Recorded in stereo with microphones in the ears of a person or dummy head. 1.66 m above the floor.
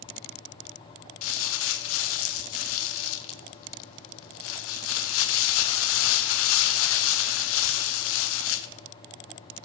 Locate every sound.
1.2 s crumpling: 75° left (ahead or behind), 0.6 m